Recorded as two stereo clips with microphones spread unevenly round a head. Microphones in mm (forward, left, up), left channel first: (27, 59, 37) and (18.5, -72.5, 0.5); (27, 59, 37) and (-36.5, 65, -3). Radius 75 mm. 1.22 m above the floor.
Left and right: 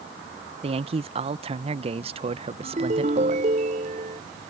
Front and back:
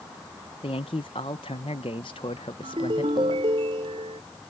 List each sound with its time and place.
0.6 s a man speaking: 55° right
2.6 s a ringtone: 145° right